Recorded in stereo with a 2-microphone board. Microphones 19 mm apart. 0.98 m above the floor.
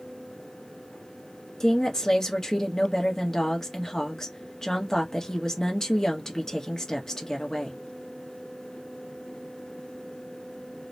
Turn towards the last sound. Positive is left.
turn(degrees=30)  # may be behind; listen again after turning